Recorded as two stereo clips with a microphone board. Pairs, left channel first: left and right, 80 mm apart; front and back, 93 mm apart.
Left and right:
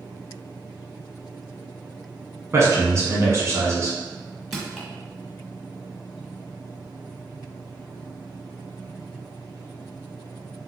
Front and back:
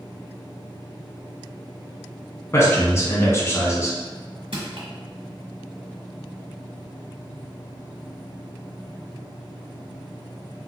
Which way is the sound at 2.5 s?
55° right.